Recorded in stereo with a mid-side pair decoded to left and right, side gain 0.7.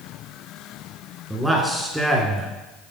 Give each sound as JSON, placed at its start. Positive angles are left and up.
{"t": 1.3, "sound": "a man speaking", "azimuth_deg": -5, "distance_m": 1.1}